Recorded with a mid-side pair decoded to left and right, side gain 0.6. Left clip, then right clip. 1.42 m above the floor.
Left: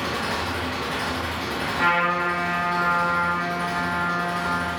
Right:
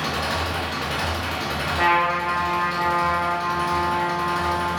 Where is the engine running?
30° right, 1.2 m.